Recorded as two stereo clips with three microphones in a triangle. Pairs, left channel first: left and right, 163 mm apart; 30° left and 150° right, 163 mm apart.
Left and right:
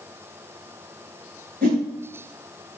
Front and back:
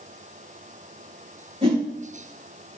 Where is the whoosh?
100° right, 3.5 m.